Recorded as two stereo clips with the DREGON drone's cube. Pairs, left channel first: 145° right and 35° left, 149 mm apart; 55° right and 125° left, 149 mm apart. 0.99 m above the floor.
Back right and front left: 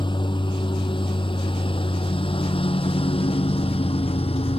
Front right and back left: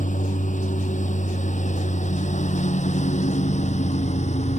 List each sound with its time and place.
0.0 s a lawn mower: 90° right; by 4.6 s 95° right